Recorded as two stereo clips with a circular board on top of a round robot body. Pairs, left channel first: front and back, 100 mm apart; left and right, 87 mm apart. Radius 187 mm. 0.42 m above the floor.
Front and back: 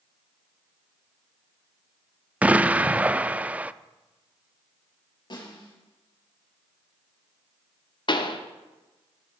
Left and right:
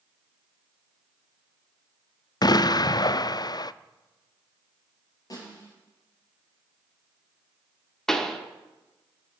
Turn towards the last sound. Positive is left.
turn(degrees=5)